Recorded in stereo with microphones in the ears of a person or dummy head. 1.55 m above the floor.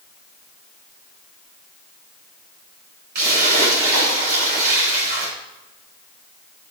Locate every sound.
3.1 s a splash: 55° right (ahead or behind), 6 m